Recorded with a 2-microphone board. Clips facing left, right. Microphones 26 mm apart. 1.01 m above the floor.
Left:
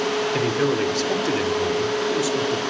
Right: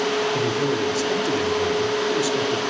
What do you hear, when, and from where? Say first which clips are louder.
0.3 s a man speaking: left 1 dB; 55° left (ahead or behind), 3 m; by 2.6 s 20° right (ahead or behind), 3 m